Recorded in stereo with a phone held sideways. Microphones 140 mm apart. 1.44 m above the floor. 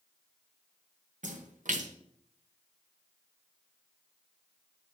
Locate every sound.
1.2 s a splash: 70° right (ahead or behind), 1.0 m